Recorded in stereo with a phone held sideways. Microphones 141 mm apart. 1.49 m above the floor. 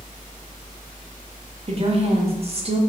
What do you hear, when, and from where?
1.7 s a woman speaking: 45° right (ahead or behind), 0.5 m